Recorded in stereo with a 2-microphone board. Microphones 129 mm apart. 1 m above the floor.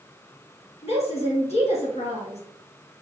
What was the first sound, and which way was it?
A woman speaking, 55° left (ahead or behind).